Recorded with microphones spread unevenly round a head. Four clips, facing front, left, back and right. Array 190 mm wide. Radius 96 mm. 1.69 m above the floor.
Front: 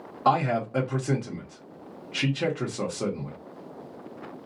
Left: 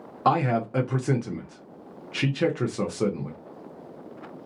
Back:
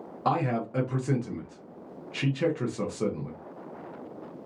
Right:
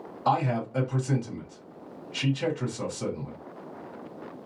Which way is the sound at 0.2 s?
70° left.